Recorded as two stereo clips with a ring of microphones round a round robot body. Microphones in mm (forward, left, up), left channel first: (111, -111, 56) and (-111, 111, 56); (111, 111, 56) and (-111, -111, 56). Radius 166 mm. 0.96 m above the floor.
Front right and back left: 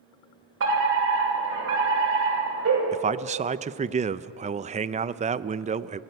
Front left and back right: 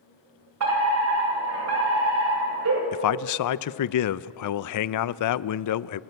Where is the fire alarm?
175° right, 6 m.